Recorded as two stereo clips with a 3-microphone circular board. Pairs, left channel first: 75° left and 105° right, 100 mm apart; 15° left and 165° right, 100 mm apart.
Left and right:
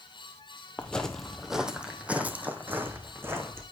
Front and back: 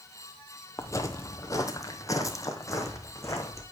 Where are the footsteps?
10° left, 1.0 m; by 3.6 s 40° right, 2.5 m.